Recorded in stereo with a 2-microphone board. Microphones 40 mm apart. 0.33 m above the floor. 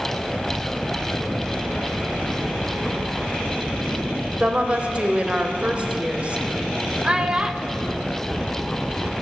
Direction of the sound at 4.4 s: 30° right (ahead or behind).